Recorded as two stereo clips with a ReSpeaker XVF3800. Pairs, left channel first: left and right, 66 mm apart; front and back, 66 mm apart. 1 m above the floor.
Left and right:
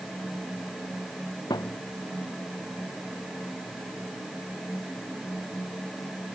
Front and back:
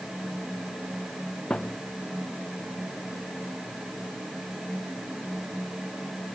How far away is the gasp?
I don't hear a gasp.